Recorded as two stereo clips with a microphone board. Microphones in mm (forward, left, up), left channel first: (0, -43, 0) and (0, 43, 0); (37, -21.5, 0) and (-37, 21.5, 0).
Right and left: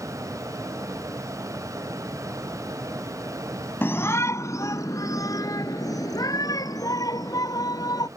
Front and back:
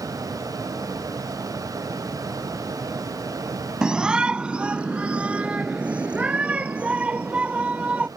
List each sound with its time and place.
3.8 s a shout: 135° right